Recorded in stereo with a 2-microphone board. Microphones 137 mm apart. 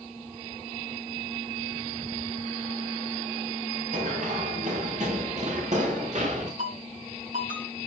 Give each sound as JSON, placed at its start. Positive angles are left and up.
{"t": 3.9, "sound": "running footsteps", "side_deg": -65, "distance_m": 4.5}
{"t": 6.6, "sound": "a ringtone", "side_deg": -70, "distance_m": 4.0}